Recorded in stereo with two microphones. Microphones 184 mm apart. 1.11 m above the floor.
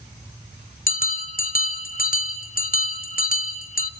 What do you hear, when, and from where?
0.9 s a bell: 50° left (ahead or behind), 1.3 m